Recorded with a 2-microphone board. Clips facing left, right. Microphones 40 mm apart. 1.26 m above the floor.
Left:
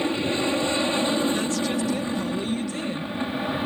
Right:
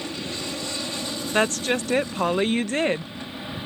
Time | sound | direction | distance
0.0 | an aircraft | 30° left (ahead or behind) | ?
1.3 | a woman speaking | 50° right (ahead or behind) | ?